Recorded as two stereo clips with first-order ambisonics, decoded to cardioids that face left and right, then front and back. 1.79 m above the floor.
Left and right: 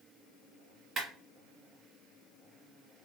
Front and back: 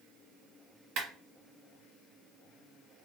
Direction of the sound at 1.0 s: 160° right.